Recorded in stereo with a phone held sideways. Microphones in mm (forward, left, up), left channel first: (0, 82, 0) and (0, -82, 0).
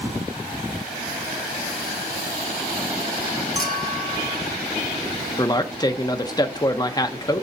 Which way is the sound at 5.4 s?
25° left (ahead or behind).